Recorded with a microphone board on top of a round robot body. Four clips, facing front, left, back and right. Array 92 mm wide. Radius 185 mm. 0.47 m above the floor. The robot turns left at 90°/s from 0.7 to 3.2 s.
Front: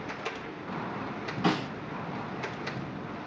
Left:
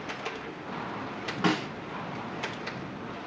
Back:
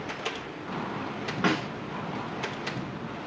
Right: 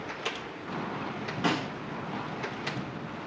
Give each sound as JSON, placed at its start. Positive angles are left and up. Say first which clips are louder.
{"t": 1.4, "sound": "a snare drum", "louder": "left 2 dB, back 1 dB", "azimuth_deg": 155, "distance_m": 1.4}